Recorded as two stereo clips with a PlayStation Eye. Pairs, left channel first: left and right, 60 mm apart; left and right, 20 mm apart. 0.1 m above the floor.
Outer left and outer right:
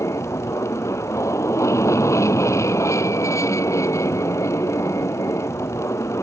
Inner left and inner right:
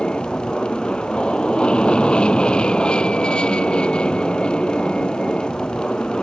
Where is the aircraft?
55° left (ahead or behind).